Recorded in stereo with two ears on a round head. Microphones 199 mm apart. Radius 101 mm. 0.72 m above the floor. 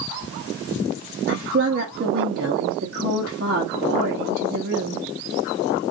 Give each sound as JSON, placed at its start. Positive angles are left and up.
{"t": 1.3, "sound": "a woman speaking", "side_deg": -45, "distance_m": 1.1}